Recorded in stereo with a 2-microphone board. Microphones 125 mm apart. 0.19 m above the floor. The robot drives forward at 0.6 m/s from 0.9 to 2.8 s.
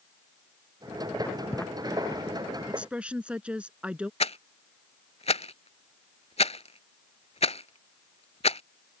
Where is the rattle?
60° left (ahead or behind).